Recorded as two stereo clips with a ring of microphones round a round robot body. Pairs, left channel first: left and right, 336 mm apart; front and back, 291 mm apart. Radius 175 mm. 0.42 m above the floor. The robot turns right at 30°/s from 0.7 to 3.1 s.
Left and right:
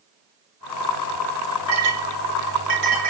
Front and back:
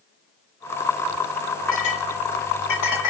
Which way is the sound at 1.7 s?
65° right.